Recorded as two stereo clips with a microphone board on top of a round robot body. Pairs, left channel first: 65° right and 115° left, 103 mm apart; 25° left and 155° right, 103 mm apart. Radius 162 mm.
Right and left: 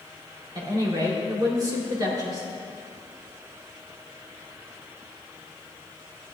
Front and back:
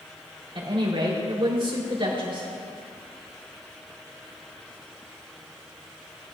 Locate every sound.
0.6 s a woman speaking: 165° left, 3.5 m